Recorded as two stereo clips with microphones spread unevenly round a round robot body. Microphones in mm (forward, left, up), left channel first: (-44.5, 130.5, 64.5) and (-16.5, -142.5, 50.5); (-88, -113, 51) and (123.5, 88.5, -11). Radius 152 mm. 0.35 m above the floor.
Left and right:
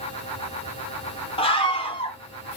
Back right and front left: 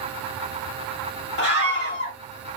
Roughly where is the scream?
Behind.